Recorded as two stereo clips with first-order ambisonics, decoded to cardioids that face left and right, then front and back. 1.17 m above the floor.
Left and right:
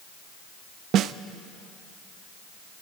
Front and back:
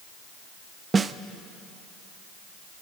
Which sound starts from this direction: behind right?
A snare drum, at 0.9 s.